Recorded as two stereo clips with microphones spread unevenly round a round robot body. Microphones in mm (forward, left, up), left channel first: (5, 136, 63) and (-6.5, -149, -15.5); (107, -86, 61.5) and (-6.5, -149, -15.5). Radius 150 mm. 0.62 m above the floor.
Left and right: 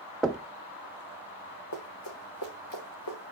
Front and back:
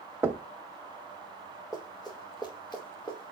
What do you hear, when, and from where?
0.2 s knocking: 170° right, 0.6 m
1.7 s running footsteps: 115° left, 2.5 m; by 3.3 s 95° left, 3 m